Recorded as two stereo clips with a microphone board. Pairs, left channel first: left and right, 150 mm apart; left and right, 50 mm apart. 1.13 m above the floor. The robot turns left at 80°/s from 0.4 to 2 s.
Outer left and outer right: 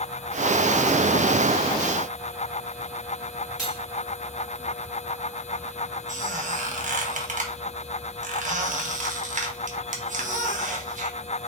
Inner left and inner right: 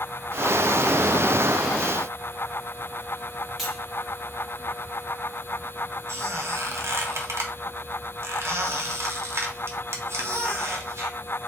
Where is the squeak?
60° right (ahead or behind), 1.0 m.